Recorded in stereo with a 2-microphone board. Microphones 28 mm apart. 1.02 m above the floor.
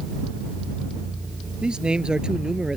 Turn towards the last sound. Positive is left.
turn(degrees=-25)  # may be behind; listen again after turning